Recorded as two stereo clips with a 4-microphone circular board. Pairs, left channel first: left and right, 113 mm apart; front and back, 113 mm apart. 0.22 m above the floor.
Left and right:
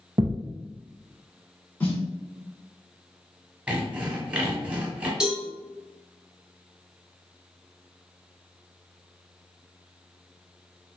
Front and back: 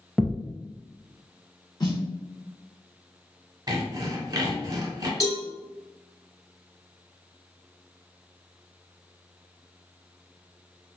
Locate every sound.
0.2 s a thud: 85° right, 0.7 m
1.8 s a snare drum: 25° left, 1.6 m
3.7 s sawing: 160° right, 0.8 m
5.2 s a cowbell: 10° right, 1.0 m